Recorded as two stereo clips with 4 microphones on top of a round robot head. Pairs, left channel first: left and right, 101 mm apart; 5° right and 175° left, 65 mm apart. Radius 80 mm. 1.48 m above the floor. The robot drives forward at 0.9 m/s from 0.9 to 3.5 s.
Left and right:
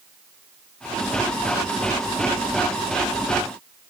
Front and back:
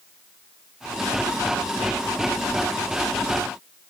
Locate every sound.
Only background noise.